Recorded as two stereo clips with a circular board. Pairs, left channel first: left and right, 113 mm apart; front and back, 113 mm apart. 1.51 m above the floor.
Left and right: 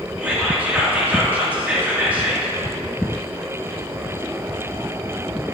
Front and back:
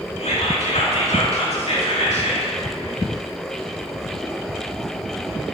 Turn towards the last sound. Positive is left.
turn(degrees=-15)